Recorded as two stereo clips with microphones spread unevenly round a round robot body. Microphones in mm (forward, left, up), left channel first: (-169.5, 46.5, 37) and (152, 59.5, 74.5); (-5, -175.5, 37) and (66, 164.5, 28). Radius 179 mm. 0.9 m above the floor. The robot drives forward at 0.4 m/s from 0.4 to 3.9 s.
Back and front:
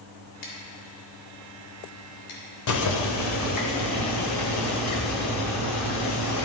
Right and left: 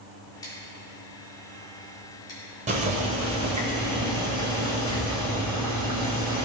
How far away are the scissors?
About 2.5 m.